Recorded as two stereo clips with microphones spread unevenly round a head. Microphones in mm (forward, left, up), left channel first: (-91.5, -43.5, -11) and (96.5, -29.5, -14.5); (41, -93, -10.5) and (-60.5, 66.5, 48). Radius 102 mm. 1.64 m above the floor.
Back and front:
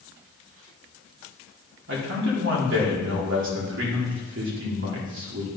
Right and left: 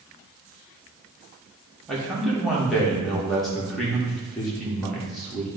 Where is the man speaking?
35° left, 1.7 m.